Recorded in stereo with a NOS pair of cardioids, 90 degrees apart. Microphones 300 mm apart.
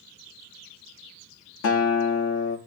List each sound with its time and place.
1.6 s a guitar: 55° left, 1.2 m